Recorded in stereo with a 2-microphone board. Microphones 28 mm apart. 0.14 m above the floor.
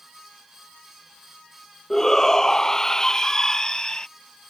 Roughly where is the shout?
Centre.